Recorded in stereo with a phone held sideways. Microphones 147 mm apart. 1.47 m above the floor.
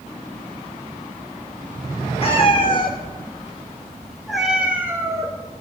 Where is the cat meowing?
40° left (ahead or behind), 1.8 m; by 5.3 s 25° right (ahead or behind), 1.6 m.